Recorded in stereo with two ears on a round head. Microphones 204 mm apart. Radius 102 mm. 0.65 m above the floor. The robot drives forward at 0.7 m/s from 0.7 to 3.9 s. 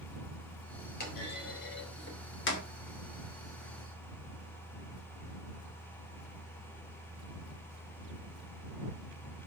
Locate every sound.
1.0 s a clunk: 40° left (ahead or behind), 3.5 m; by 2.7 s 55° left (ahead or behind), 3 m